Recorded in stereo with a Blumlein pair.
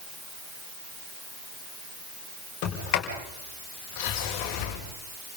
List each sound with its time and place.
2.6 s a sliding door: 40° left, 6.5 m